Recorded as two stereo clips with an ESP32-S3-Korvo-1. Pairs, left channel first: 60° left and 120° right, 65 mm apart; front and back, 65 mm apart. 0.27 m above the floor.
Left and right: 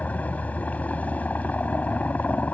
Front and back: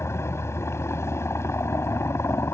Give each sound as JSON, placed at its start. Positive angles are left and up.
{"t": 0.0, "sound": "a helicopter", "azimuth_deg": 5}